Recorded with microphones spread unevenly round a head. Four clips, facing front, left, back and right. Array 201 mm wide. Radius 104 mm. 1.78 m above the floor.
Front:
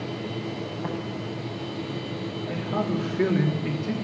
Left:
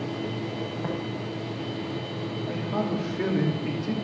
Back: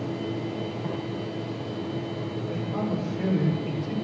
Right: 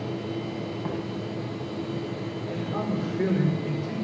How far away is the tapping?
About 8.5 m.